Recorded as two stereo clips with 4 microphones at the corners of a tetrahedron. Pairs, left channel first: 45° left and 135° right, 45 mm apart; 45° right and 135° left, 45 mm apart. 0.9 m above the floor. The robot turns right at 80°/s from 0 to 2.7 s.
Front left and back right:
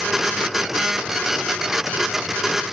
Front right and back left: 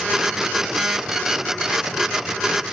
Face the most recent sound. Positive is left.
No sound to turn to.